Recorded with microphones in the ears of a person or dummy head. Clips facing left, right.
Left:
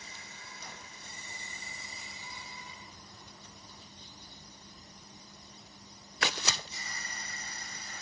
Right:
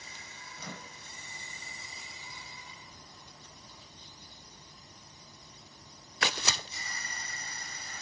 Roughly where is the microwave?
Right.